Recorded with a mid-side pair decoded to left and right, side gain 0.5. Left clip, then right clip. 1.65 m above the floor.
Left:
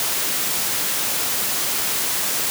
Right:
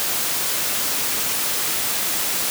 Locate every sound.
Only background noise.